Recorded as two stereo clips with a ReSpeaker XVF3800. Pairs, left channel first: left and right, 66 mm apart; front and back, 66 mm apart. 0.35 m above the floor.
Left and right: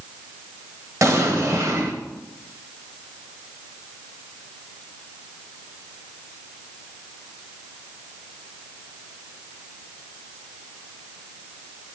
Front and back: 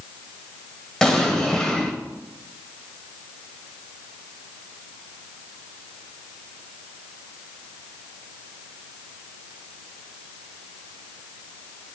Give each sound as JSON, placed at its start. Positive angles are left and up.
{"t": 1.0, "sound": "an explosion", "azimuth_deg": -80, "distance_m": 1.1}